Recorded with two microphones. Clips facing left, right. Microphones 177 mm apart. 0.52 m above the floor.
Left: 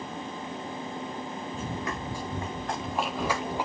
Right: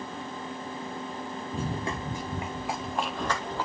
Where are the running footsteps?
40° right (ahead or behind), 2 m; by 3.6 s 20° left (ahead or behind), 2.5 m.